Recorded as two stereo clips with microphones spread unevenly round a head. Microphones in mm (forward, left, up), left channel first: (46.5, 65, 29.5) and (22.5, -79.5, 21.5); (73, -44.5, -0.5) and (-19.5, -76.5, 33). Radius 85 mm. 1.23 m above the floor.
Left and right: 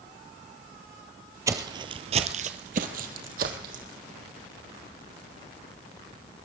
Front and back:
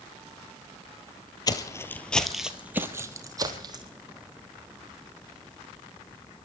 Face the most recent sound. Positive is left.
turn(degrees=-145)